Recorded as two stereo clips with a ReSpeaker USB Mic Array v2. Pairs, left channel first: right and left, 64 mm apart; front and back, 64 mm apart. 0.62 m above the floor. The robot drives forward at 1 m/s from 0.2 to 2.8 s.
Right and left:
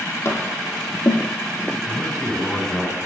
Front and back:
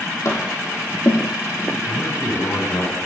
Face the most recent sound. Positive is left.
turn(degrees=-5)